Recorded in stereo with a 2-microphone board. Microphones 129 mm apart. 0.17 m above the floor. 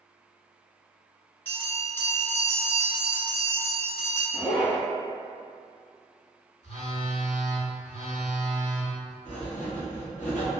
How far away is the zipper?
About 1.6 m.